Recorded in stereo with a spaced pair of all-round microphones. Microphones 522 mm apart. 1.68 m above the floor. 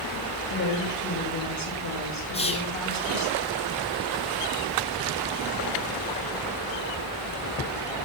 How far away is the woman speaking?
About 3 m.